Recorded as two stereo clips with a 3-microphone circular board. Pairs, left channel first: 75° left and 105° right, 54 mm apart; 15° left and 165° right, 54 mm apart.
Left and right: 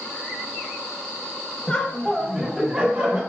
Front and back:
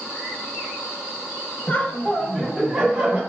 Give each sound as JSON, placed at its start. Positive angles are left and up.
{"t": 1.7, "sound": "laughter", "azimuth_deg": 25, "distance_m": 1.0}